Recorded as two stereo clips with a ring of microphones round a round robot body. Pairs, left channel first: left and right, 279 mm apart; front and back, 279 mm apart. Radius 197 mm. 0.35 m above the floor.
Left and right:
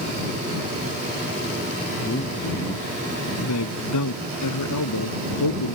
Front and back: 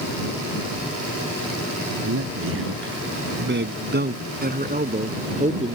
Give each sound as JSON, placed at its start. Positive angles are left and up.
{"t": 2.0, "sound": "a man speaking", "azimuth_deg": 150}